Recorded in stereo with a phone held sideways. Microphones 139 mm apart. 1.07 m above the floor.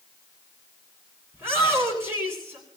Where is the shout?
15° right (ahead or behind), 8.5 m.